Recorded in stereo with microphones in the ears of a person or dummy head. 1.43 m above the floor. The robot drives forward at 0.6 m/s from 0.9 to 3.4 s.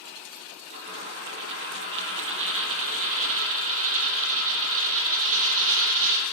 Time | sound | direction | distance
0.7 | a dropped coin | 65° right (ahead or behind) | 6.5 m